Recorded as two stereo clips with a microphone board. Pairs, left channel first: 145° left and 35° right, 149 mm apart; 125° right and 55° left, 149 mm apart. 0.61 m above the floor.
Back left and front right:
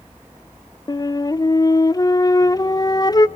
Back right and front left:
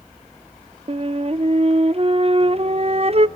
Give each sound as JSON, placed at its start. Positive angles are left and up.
{"t": 0.9, "sound": "a flute", "azimuth_deg": 90, "distance_m": 0.7}